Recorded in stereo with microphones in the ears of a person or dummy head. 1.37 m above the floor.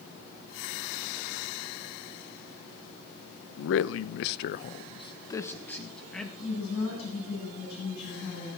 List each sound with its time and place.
3.6 s a man speaking: 65° left (ahead or behind), 0.7 m; by 6.3 s centre (ahead or behind), 1.3 m
6.4 s a woman speaking: 60° left (ahead or behind), 9 m